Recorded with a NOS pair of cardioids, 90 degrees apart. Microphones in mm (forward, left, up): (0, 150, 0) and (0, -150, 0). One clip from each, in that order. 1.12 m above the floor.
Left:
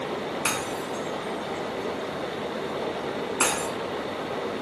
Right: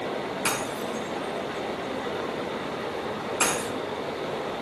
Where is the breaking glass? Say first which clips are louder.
Even; 10° left, 5.5 m.